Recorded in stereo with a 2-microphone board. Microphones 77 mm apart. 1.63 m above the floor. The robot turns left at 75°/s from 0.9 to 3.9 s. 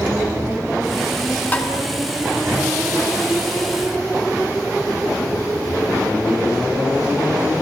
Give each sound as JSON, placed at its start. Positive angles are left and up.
{"t": 1.5, "sound": "tapping", "side_deg": 25, "distance_m": 3.5}